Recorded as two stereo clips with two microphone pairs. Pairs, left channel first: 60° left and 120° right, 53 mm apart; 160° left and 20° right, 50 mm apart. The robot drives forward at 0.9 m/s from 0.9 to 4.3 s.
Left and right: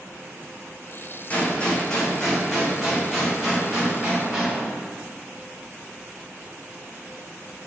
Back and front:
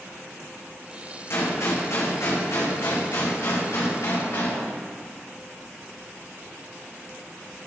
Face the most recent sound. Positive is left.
turn(degrees=155)